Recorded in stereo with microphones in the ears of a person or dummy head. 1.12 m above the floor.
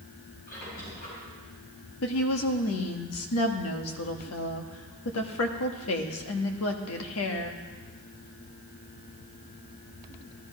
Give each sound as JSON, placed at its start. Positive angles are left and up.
{"t": 0.5, "sound": "a squeak", "side_deg": 50, "distance_m": 5.5}
{"t": 2.0, "sound": "a woman speaking", "side_deg": 85, "distance_m": 1.6}